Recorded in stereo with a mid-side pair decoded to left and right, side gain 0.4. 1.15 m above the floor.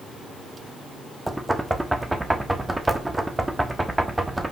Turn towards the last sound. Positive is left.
turn(degrees=-15)